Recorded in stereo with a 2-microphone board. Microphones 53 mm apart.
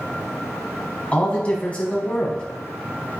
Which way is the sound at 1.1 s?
25° left (ahead or behind).